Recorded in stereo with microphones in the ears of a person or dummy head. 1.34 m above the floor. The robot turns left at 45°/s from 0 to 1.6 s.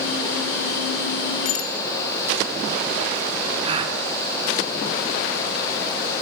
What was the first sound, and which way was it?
A bicycle bell, 40° left (ahead or behind).